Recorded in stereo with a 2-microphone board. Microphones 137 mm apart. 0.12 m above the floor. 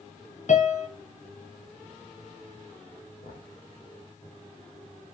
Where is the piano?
60° left (ahead or behind), 1.4 m.